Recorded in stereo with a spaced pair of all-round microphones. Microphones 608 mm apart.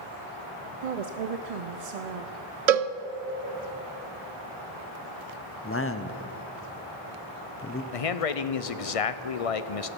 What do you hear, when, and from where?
0.8 s a woman speaking: 75° right (ahead or behind), 0.7 m
2.7 s a cowbell: 75° right (ahead or behind), 0.6 m
5.6 s a man speaking: 20° left (ahead or behind), 0.8 m
7.9 s a man speaking: 65° left (ahead or behind), 0.7 m